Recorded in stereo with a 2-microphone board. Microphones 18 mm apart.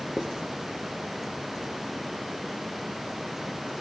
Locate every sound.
0.2 s writing: 45° right (ahead or behind), 3.5 m